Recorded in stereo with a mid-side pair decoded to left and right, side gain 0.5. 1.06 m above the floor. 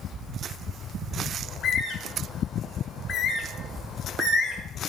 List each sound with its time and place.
1.4 s a bird: 55° left, 1.9 m